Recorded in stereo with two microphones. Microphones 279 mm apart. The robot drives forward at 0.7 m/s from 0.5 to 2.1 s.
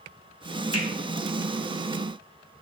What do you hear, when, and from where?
0.7 s a finger snap: 55° left (ahead or behind), 1.0 m